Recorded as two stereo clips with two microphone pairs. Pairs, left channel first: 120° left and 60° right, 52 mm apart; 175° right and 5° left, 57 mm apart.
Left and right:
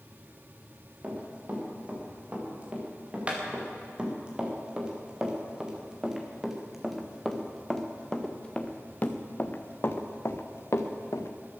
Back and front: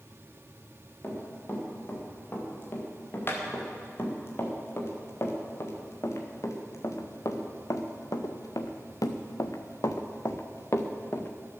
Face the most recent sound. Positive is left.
turn(degrees=135)